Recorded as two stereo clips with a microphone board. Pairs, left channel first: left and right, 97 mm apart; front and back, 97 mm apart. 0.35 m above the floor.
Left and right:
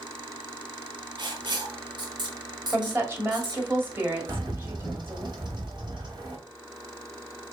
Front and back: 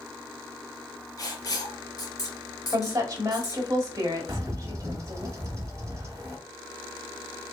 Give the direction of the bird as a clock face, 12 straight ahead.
4 o'clock.